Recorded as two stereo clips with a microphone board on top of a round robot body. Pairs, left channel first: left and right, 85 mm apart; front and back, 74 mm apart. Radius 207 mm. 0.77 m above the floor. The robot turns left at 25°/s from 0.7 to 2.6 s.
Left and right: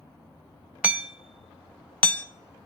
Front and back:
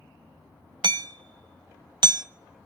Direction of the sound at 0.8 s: 165° right.